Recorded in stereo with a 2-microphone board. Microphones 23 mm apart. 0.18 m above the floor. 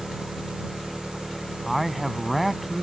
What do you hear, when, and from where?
0.0 s an engine running: 60° right (ahead or behind)
1.6 s a man speaking: 5° right (ahead or behind)